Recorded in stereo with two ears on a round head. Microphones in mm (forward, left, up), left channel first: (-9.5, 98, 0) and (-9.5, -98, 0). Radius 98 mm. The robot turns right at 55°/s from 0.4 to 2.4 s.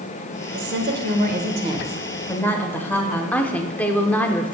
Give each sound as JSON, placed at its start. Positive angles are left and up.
{"t": 0.5, "sound": "a woman speaking", "azimuth_deg": -90, "distance_m": 1.2}
{"t": 3.3, "sound": "a woman speaking", "side_deg": 5, "distance_m": 0.8}